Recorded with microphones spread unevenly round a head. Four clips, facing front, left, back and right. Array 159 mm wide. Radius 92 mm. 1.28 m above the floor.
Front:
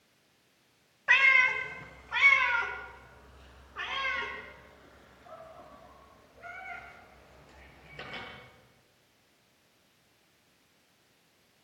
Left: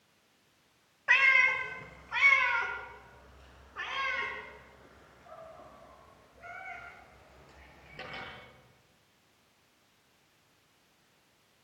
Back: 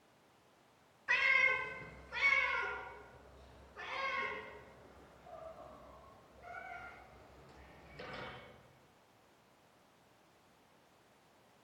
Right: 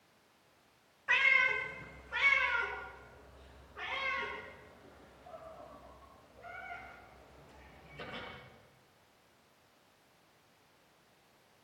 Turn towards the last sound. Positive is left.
turn(degrees=25)